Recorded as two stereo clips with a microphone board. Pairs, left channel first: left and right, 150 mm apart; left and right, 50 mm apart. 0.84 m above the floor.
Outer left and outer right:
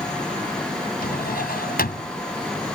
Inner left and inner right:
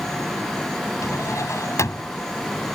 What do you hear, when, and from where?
1.0 s a drawer: 85° left